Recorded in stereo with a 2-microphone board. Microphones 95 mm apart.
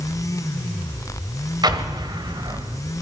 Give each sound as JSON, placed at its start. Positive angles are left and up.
{"t": 1.6, "sound": "an explosion", "side_deg": -50, "distance_m": 1.9}